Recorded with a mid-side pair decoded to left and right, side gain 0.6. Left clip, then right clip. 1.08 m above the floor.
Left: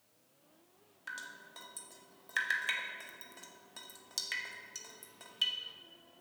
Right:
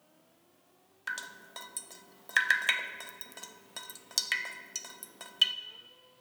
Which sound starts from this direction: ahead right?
Dripping, at 1.1 s.